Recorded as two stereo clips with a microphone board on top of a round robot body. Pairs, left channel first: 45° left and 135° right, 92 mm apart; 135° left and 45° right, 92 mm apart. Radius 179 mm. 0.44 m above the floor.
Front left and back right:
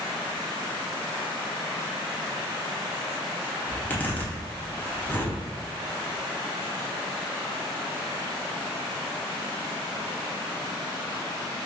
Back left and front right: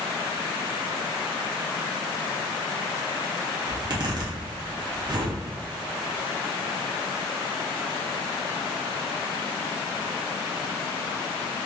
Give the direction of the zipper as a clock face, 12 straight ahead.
1 o'clock.